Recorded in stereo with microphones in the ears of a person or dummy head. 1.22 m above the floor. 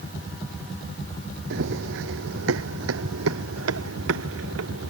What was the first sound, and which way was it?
Running footsteps, 60° right (ahead or behind).